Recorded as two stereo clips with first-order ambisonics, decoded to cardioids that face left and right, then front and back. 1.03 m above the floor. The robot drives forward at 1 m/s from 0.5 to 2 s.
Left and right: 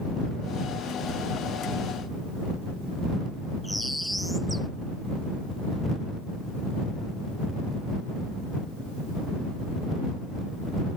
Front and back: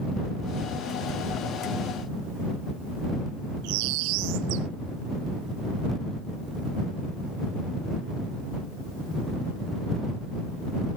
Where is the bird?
Straight behind.